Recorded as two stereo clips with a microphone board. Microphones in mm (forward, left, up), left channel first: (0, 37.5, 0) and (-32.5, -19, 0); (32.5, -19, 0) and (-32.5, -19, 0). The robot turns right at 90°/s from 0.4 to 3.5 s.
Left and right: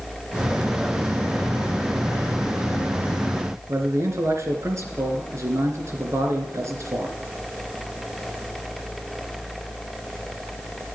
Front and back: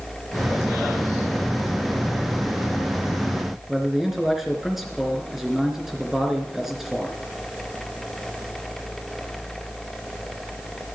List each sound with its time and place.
3.7 s a man speaking: 95° right, 3 m